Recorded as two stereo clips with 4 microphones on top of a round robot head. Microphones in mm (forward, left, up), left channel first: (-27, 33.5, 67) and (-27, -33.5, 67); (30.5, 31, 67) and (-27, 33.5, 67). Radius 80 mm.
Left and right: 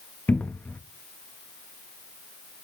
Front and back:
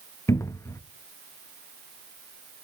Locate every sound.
0.3 s a cupboard door: 25° left, 0.7 m